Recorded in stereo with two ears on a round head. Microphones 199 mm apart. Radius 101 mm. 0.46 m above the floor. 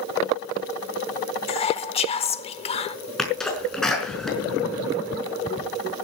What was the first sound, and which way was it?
Whispering, 30° left (ahead or behind).